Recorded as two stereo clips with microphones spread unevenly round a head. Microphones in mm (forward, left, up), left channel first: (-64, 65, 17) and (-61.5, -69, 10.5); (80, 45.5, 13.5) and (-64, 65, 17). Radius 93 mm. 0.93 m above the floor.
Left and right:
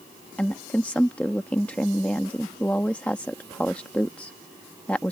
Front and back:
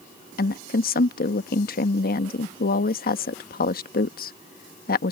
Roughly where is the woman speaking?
Ahead.